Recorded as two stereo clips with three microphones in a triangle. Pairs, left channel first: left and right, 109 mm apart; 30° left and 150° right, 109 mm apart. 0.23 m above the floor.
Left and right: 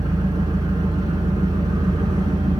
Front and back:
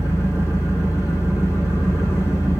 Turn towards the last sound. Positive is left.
turn(degrees=-35)